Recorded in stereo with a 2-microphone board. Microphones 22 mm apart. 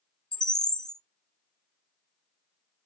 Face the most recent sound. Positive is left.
turn(degrees=30)  # may be behind; listen again after turning